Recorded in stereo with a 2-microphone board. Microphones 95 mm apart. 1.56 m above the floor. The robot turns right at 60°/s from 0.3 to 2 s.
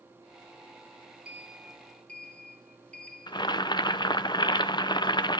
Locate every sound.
1.2 s a sliding door: 20° right, 1.4 m; by 3.5 s 25° left, 1.4 m
3.3 s boiling: 50° left (ahead or behind), 0.6 m